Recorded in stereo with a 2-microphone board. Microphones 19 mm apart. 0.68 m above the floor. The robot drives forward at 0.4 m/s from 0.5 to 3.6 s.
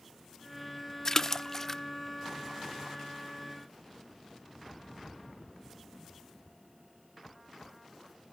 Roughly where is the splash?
Left.